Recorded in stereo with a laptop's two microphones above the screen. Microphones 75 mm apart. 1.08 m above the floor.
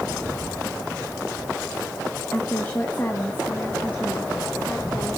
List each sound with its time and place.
2.3 s a woman speaking: 25° left (ahead or behind), 1.3 m; by 5.2 s 20° left (ahead or behind), 3 m